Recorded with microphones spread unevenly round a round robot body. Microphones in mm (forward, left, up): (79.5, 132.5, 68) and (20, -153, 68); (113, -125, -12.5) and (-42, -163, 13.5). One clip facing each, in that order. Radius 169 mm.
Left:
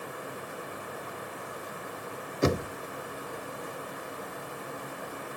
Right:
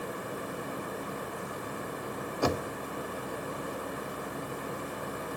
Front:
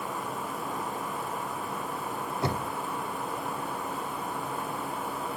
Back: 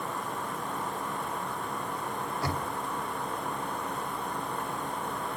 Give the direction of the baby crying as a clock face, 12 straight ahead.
No baby crying in this recording.